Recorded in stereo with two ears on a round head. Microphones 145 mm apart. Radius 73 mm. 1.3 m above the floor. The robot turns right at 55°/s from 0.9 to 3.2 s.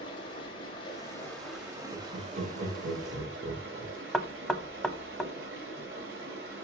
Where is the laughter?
40° right (ahead or behind), 5 m; by 4.0 s 65° right (ahead or behind), 5 m.